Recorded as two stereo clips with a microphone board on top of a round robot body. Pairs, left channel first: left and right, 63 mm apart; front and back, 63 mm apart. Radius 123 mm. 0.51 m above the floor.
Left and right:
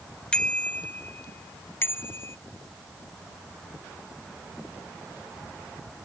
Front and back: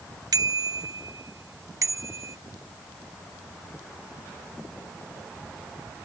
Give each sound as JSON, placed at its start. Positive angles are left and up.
{"t": 0.3, "sound": "a bicycle bell", "azimuth_deg": 165}